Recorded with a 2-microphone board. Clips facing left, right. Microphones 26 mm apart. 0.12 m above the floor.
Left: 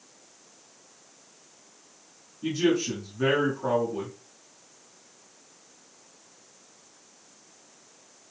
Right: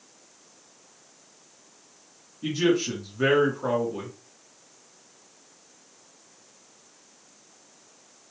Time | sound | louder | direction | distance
2.4 | a man speaking | right 1 dB | 15° right (ahead or behind) | 1.1 m